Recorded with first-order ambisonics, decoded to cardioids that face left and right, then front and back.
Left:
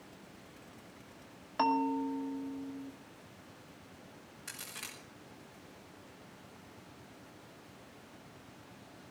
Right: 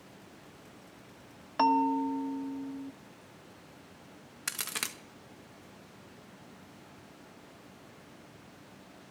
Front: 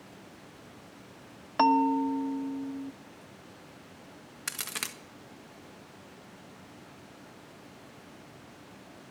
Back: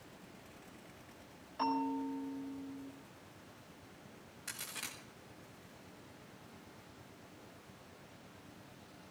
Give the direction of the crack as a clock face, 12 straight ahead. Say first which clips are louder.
Right 9 dB, front 9 dB; 1 o'clock.